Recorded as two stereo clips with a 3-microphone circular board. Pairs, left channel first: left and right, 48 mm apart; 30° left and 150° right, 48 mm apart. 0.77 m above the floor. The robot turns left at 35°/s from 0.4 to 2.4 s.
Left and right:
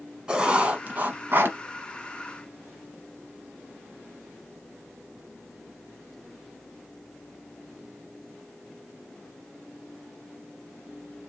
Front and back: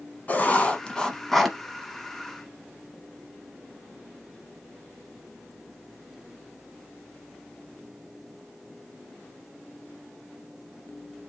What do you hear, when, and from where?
0.3 s writing: 20° right, 1.0 m; by 1.6 s 65° right, 1.0 m